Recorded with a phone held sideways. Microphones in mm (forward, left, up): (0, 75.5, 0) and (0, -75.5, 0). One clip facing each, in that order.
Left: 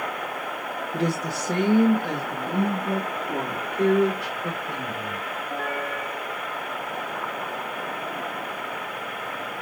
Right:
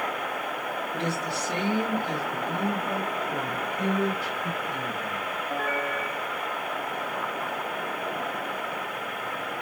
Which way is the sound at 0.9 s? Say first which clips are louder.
Left 6 dB; 35° left (ahead or behind).